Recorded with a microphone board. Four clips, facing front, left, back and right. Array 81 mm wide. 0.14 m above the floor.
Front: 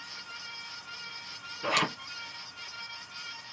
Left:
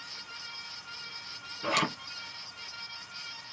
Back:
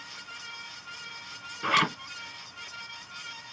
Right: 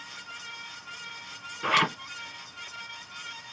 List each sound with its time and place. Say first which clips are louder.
1.6 s a zipper: right 5 dB, back 4 dB; 125° right, 2 m